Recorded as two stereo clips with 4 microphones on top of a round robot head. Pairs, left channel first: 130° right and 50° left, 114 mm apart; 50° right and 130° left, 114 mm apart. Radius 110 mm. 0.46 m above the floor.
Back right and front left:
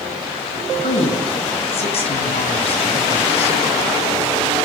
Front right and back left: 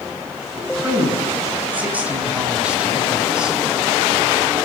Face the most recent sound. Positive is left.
turn(degrees=-150)